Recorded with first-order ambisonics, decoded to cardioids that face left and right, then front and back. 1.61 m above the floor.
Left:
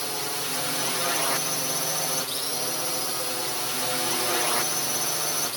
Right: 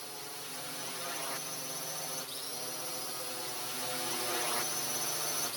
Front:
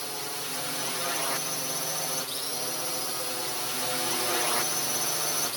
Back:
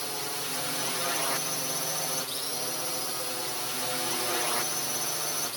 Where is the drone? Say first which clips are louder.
Left 14 dB, back 1 dB; 95° left; by 5.6 s 75° left.